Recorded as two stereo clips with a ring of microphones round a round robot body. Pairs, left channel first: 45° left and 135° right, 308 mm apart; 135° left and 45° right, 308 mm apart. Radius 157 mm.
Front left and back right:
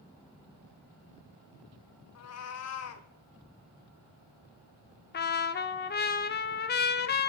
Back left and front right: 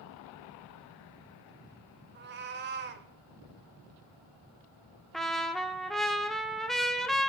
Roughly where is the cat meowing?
Ahead.